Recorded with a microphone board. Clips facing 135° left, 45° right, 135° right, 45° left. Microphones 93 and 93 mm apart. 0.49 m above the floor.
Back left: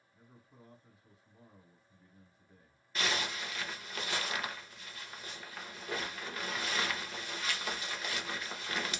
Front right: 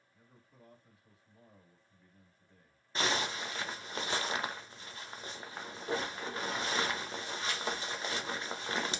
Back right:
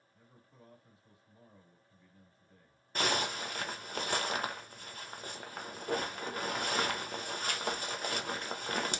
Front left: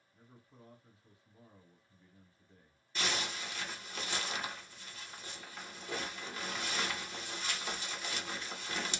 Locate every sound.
0.1 s a man speaking: 90° left, 1.4 m
3.0 s a zipper: 105° right, 0.6 m